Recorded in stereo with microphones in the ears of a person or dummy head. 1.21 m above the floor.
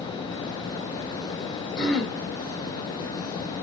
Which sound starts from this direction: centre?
Throat clearing, at 1.8 s.